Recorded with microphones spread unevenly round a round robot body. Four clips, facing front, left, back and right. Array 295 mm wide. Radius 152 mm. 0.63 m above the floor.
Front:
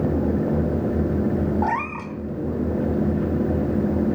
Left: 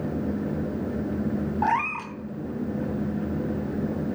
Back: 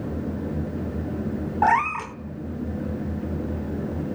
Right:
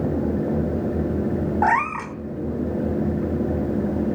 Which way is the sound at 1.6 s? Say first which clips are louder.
Right 5 dB, back 4 dB; 150° right.